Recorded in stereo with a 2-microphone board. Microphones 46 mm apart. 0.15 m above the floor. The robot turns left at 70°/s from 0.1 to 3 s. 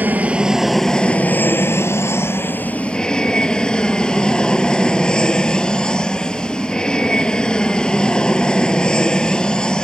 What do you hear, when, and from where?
0.0 s an aircraft: 135° right; by 9.8 s 20° left